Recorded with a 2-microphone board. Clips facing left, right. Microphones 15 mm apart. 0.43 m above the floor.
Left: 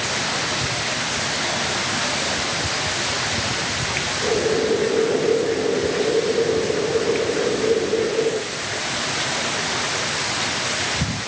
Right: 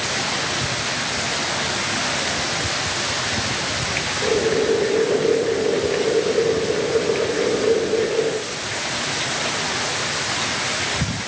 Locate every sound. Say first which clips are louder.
4.2 s boiling: right 1 dB; 35° right (ahead or behind), 1.1 m